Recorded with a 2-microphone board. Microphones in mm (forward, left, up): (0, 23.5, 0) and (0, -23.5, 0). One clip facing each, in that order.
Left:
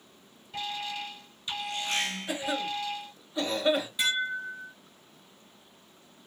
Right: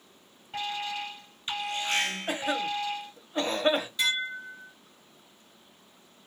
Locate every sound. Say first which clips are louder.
0.5 s an alarm: right 2 dB; 35° right (ahead or behind), 1.3 m
2.3 s a cough: right 2 dB; 45° right (ahead or behind), 1.1 m
4.0 s dishes clattering: left 1 dB; 10° left (ahead or behind), 1.3 m